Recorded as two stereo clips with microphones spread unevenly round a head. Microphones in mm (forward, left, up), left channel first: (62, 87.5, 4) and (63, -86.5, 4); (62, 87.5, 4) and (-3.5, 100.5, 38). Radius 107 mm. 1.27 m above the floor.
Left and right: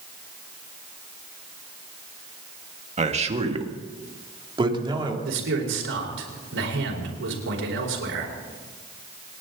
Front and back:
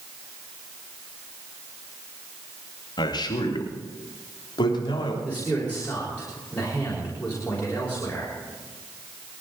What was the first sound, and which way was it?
A man speaking, 40° right.